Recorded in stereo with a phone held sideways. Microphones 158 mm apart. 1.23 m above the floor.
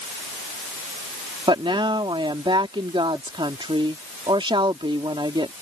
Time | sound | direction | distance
1.5 | a woman speaking | 30° right (ahead or behind) | ?